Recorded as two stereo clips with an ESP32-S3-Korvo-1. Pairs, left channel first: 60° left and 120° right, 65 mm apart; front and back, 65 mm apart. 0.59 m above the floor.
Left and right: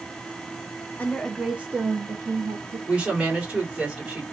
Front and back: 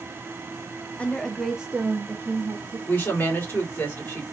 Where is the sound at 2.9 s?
50° right, 1.9 m.